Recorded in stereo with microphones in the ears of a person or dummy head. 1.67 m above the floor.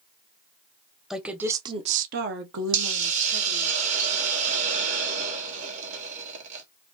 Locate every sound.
1.1 s a woman speaking: 5° right (ahead or behind), 0.7 m; by 3.7 s 70° right (ahead or behind), 1.1 m
2.7 s a hiss: 45° right (ahead or behind), 0.9 m